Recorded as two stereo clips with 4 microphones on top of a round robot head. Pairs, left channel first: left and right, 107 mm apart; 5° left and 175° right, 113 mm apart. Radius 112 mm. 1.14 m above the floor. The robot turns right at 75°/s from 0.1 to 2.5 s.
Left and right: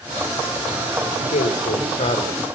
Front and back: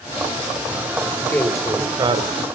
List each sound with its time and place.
1.0 s a man speaking: 60° left, 3.5 m; by 2.5 s 165° left, 3.5 m